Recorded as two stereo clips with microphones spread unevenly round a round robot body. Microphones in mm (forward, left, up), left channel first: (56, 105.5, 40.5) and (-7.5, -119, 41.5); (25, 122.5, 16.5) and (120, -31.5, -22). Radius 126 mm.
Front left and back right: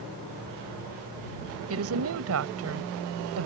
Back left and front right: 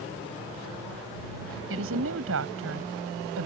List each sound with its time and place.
1.7 s a woman speaking: 80° right